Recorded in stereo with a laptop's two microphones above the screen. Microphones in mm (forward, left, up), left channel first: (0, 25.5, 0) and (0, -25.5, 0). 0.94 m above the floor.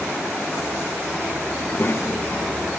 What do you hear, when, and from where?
1.6 s a child speaking: 30° left (ahead or behind), 0.7 m; by 2.7 s 70° left (ahead or behind), 1.0 m